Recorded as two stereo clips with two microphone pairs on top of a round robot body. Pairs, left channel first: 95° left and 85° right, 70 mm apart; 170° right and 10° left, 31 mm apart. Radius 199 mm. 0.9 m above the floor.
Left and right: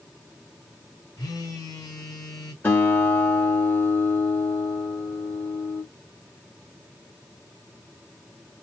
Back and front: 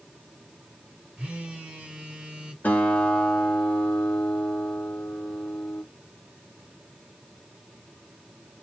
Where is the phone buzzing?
65° left, 1.5 m.